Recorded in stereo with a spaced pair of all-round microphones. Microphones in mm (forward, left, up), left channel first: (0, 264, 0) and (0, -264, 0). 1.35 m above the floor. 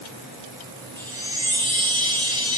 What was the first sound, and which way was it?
A chime, 10° right (ahead or behind).